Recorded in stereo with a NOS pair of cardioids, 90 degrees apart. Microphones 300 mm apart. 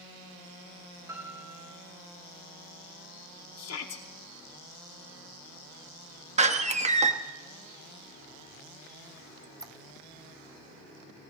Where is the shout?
55° left, 2 m.